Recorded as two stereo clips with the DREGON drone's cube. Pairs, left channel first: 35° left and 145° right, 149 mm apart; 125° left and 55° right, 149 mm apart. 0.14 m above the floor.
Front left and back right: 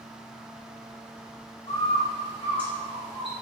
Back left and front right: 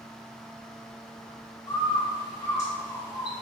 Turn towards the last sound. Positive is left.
turn(degrees=60)